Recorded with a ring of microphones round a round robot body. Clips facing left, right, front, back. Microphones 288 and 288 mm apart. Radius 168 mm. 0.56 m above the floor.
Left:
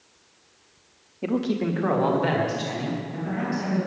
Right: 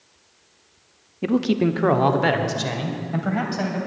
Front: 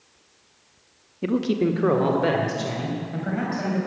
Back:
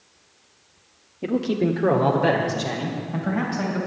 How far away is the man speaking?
About 0.8 m.